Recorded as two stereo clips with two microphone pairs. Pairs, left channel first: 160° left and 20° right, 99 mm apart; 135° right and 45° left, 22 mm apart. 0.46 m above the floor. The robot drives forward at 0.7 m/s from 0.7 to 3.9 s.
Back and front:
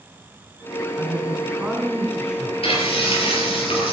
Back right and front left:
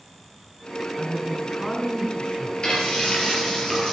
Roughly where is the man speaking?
Right.